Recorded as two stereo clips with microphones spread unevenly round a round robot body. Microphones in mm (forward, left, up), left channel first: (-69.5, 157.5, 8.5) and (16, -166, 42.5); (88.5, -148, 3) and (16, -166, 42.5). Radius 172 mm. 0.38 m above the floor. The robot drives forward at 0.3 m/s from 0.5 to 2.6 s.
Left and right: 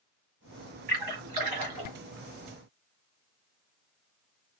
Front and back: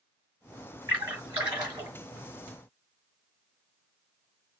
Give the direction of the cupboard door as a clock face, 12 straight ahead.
I don't hear a cupboard door.